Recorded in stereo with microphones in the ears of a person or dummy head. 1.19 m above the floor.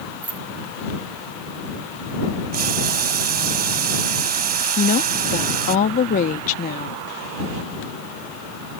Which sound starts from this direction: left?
A woman speaking, at 4.8 s.